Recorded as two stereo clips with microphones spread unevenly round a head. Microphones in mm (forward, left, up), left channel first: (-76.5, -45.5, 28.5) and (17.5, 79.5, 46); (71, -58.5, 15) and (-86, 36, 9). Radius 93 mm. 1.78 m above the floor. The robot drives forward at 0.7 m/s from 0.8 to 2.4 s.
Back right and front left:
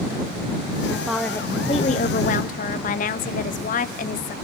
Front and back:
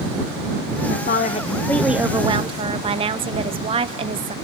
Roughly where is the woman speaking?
Ahead.